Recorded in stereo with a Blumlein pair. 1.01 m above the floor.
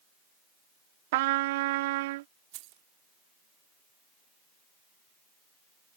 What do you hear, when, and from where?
1.1 s a trumpet: 50° right
2.5 s keys jangling: 45° right